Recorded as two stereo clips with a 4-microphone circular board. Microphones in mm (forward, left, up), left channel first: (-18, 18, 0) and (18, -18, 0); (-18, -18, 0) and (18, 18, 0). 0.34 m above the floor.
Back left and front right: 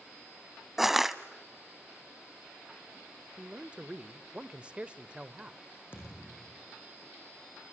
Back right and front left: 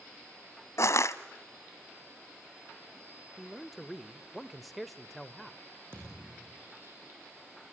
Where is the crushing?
130° right, 0.9 m.